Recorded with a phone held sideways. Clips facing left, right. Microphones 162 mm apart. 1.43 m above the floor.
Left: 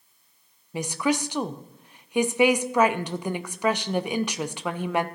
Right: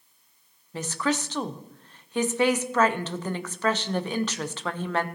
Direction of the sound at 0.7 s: 15° left (ahead or behind).